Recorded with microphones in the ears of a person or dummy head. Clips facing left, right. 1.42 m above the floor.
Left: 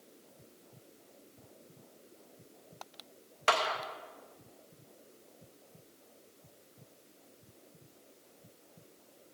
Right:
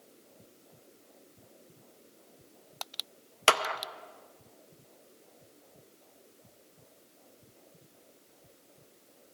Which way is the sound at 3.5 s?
45° right (ahead or behind).